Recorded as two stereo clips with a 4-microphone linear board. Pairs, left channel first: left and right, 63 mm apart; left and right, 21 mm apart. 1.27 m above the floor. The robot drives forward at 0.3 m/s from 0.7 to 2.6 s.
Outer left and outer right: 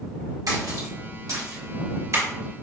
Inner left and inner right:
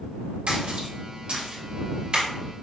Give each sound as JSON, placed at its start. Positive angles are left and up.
{"t": 0.5, "sound": "a splash", "side_deg": -75, "distance_m": 1.1}